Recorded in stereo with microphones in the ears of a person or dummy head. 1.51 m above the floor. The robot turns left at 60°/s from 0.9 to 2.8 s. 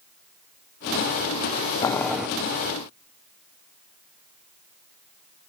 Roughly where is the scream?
I don't hear a scream.